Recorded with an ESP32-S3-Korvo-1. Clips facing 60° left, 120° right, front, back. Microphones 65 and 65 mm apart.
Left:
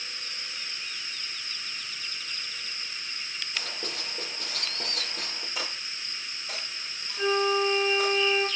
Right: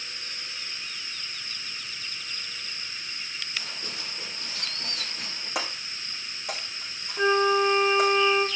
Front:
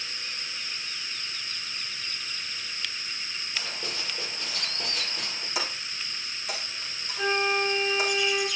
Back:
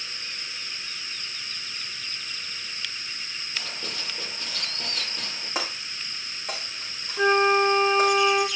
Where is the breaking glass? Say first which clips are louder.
Right 6 dB, back 2 dB; 135° right, 5 m.